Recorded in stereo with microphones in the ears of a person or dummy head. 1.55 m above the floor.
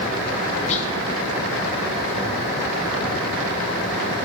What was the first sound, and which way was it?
Whispering, 40° left (ahead or behind).